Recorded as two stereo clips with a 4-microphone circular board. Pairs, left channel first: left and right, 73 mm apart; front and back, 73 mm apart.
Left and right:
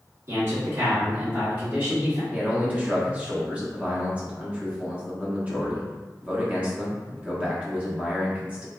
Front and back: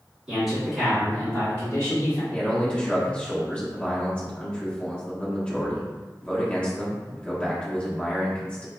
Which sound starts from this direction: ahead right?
A man speaking, at 2.3 s.